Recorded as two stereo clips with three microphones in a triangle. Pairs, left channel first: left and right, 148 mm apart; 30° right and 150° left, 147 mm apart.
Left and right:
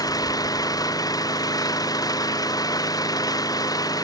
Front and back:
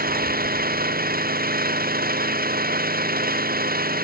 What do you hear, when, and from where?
0.0 s an engine running: 155° left